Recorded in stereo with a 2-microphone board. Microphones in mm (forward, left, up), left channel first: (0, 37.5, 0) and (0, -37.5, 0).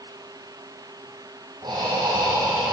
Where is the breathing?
70° right (ahead or behind), 3.5 m.